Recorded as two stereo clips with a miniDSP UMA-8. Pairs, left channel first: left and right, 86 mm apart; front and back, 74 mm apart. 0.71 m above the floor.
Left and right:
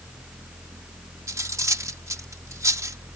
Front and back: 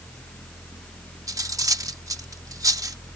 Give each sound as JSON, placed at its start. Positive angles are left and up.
{"t": 1.3, "sound": "cutlery clinking", "azimuth_deg": -140}